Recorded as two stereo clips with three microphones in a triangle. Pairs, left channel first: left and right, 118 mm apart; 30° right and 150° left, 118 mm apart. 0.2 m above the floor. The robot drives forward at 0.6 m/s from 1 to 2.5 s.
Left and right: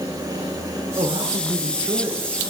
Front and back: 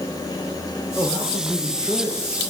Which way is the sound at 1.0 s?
130° right.